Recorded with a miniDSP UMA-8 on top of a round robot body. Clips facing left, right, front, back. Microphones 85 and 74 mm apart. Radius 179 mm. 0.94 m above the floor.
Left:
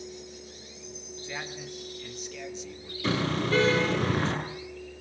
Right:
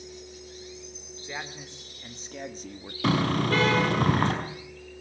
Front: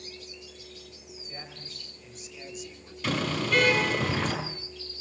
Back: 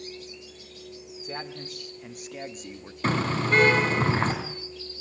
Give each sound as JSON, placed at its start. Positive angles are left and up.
{"t": 1.2, "sound": "a man speaking", "azimuth_deg": -165, "distance_m": 3.5}
{"t": 3.0, "sound": "a car horn", "azimuth_deg": -125, "distance_m": 5.0}